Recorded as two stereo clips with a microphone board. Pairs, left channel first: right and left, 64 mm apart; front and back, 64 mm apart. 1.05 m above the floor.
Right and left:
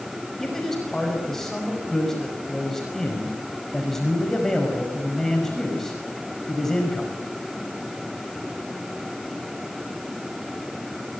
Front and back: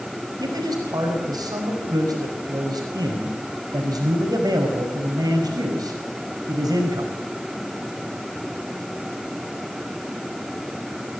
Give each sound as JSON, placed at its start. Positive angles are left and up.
{"t": 0.4, "sound": "a man speaking", "azimuth_deg": -175, "distance_m": 5.5}